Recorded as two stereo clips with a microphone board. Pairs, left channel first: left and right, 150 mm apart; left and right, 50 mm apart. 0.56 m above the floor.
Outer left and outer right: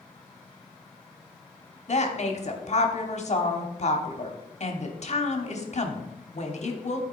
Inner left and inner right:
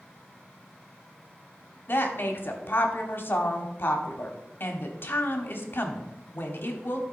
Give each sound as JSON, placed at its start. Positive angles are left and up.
{"t": 1.9, "sound": "a woman speaking", "side_deg": 50, "distance_m": 1.2}